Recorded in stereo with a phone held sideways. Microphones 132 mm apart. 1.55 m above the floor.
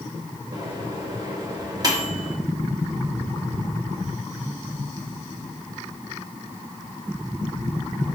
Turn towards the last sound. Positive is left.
turn(degrees=-30)  # may be behind; listen again after turning